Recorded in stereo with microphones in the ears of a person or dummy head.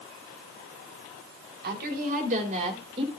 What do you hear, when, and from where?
1.6 s a woman speaking: 55° right (ahead or behind), 3 m; by 3.1 s 30° right (ahead or behind), 3 m